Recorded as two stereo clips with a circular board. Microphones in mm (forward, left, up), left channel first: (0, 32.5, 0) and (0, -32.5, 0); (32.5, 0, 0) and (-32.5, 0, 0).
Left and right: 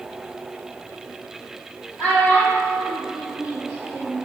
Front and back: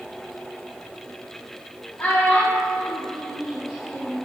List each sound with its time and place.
2.0 s a child speaking: 40° left, 1.1 m; by 4.2 s 135° right, 1.2 m